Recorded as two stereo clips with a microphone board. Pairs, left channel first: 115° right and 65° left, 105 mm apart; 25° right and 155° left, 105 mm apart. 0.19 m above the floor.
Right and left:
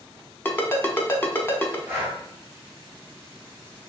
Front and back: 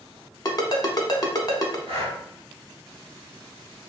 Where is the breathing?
135° left, 1.4 m.